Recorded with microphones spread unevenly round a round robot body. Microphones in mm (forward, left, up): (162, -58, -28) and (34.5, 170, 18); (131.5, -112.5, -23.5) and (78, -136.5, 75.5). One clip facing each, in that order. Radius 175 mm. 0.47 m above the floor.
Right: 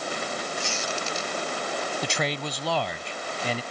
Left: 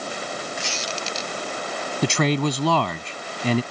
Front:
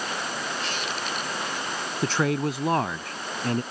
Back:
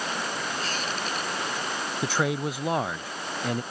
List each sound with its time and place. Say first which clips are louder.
0.6 s a squeak: even, even; 165° left
2.0 s a man speaking: left 14 dB, front 3 dB; 105° left